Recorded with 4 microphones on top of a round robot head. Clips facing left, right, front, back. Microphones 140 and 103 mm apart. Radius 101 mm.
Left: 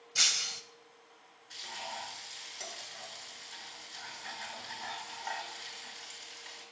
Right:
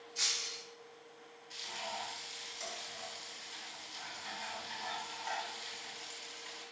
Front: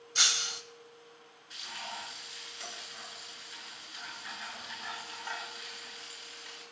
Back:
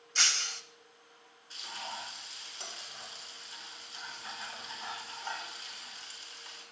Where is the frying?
120° left, 7 m.